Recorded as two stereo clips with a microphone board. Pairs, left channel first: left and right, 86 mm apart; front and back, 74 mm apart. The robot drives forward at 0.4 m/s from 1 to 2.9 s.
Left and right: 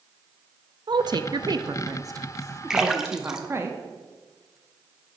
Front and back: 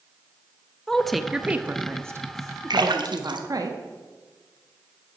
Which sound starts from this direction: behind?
A splash, at 2.7 s.